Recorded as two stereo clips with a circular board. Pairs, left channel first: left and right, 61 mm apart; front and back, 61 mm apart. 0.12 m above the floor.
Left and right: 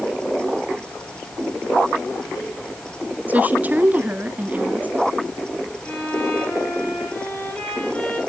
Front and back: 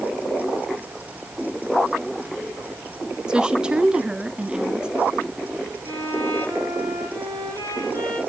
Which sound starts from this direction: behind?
A violin, at 5.8 s.